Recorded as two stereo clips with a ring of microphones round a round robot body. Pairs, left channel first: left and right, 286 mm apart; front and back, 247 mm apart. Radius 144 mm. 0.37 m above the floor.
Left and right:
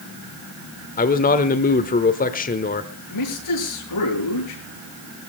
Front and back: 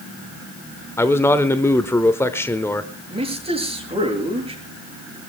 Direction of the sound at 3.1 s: 115° left.